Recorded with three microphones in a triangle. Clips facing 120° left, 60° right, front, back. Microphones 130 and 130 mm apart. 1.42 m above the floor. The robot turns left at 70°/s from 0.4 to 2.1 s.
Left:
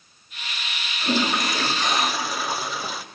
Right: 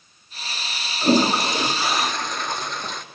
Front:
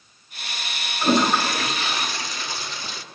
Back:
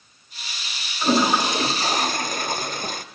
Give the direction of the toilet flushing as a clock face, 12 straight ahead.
3 o'clock.